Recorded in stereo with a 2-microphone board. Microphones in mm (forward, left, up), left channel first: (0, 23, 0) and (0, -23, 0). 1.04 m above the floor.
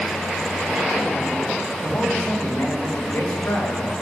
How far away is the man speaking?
About 7.5 m.